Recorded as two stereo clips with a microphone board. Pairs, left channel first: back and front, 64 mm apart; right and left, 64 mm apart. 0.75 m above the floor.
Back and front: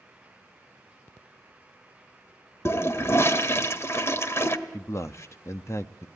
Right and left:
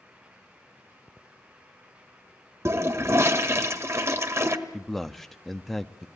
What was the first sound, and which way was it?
A toilet flushing, 135° left.